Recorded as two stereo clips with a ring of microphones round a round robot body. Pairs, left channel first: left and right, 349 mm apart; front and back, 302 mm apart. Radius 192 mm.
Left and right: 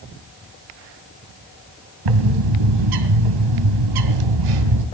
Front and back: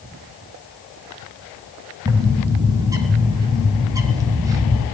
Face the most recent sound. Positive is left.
turn(degrees=-100)